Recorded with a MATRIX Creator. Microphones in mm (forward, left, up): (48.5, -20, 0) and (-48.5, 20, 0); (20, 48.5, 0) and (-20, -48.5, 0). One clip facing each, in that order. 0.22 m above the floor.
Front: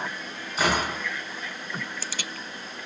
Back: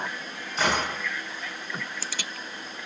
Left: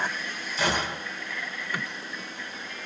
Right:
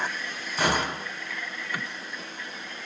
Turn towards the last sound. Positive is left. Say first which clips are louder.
# front 1 dB, right 2 dB
turn(degrees=-105)